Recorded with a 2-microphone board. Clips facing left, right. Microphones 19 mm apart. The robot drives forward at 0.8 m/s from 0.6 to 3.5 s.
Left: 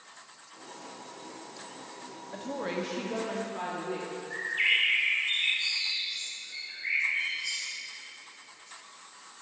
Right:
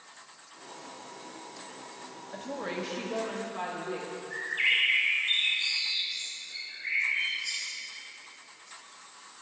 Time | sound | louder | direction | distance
2.3 | a woman speaking | left 2 dB | centre (ahead or behind) | 0.6 m
4.3 | a bird | even | 10° left (ahead or behind) | 1.9 m